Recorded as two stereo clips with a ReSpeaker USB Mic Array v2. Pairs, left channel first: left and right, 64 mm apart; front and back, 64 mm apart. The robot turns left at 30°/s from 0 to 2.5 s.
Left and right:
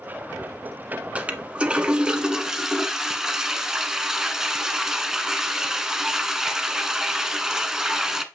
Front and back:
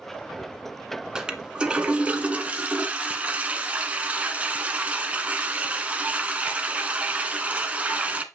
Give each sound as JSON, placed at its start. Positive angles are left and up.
{"t": 1.1, "sound": "a toilet flushing", "azimuth_deg": -120, "distance_m": 0.8}